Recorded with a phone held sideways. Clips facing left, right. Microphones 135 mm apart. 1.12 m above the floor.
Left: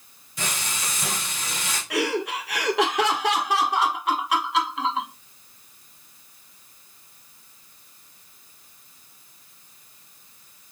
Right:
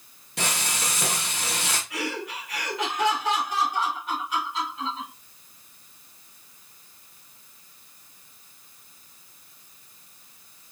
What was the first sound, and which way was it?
Frying, 65° right (ahead or behind).